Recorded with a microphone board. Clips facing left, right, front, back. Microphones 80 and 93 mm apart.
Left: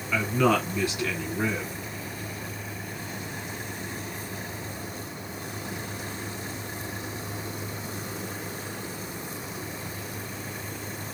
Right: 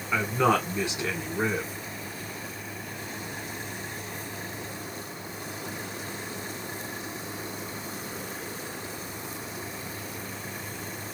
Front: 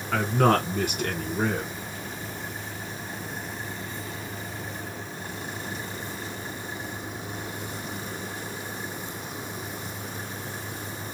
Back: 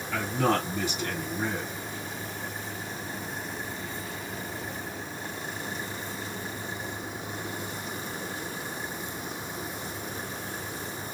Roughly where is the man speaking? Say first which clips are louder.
Even, front 5 dB; ahead right.